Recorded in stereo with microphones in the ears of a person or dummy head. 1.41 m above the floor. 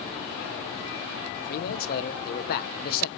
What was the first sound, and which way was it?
A man speaking, 50° left (ahead or behind).